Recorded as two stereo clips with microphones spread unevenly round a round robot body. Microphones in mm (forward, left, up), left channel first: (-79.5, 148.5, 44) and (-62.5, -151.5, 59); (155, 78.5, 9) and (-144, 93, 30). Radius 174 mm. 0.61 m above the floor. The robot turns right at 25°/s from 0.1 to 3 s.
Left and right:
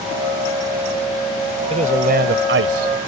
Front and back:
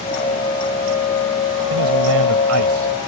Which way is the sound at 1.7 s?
155° right.